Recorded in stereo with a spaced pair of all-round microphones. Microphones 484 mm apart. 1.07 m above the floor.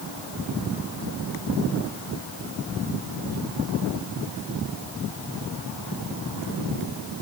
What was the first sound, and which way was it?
Only background noise.